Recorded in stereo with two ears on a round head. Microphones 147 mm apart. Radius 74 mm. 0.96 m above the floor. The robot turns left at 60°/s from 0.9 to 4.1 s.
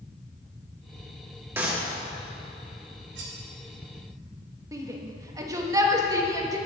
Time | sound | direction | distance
1.6 | a clap | 15° right (ahead or behind) | 1.9 m
3.1 | cutlery clinking | 85° right | 2 m
4.7 | a shout | 20° right (ahead or behind) | 1.3 m